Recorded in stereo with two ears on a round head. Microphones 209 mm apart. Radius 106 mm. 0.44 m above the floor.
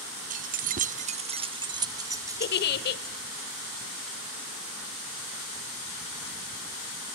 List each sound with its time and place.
0.3 s keys jangling: 35° right (ahead or behind), 0.5 m; by 3.1 s 10° right (ahead or behind), 1.5 m
2.4 s a giggle: 45° left (ahead or behind), 1.1 m